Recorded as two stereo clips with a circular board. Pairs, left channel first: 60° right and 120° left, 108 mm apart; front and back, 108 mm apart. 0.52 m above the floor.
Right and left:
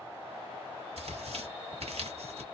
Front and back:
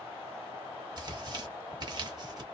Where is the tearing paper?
130° left, 0.8 m.